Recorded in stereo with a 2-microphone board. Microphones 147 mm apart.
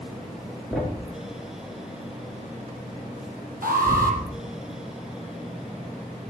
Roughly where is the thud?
Centre.